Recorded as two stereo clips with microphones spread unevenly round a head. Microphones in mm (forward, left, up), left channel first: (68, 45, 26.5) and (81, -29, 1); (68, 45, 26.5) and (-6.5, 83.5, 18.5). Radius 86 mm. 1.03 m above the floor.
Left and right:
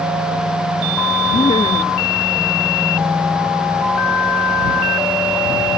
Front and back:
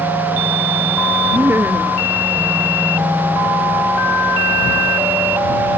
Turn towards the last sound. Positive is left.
turn(degrees=90)